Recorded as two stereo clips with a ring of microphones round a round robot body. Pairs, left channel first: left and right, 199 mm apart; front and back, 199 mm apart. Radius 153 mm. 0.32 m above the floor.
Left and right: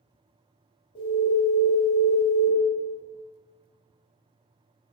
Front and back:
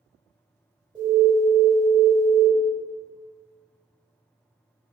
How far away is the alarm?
About 1.9 m.